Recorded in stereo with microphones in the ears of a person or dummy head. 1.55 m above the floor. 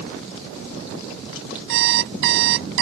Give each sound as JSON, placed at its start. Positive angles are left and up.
{"t": 1.7, "sound": "an alarm clock", "side_deg": -65}